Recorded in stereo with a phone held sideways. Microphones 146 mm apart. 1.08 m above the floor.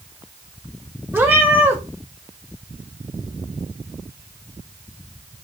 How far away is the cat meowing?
About 0.8 m.